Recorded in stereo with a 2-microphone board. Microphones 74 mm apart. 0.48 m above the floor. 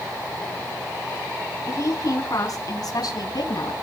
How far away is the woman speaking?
About 5 m.